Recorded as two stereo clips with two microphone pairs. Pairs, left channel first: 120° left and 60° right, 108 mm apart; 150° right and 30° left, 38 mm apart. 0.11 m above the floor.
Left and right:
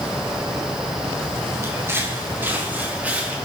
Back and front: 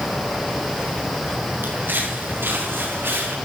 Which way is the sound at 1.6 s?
5° left.